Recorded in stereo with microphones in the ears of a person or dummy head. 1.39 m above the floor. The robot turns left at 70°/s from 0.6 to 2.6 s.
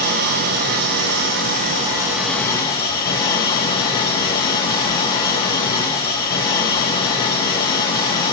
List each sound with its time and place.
0.0 s an engine running: 65° right, 0.7 m; by 8.3 s 155° left, 0.7 m